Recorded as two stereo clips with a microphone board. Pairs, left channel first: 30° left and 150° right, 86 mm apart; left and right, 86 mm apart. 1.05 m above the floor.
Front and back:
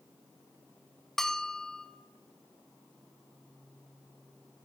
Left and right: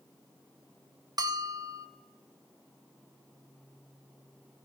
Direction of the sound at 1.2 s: 55° right.